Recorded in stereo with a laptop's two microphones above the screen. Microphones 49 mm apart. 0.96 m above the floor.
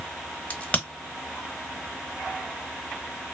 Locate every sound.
0.5 s a crack: 30° left (ahead or behind), 0.9 m